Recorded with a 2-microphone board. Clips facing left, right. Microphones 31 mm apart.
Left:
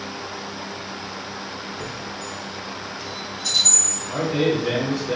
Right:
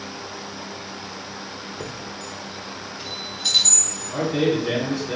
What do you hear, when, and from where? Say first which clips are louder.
1.8 s a chime: left 2 dB; 60° right (ahead or behind), 0.9 m
4.1 s a man speaking: even; 55° left (ahead or behind), 1.8 m